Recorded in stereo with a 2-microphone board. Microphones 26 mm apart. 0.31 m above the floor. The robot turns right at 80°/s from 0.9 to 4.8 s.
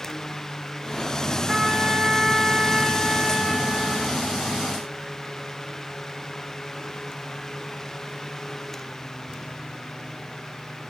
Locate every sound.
1.5 s a trumpet: 10° right (ahead or behind), 1.3 m; by 4.2 s centre (ahead or behind), 1.3 m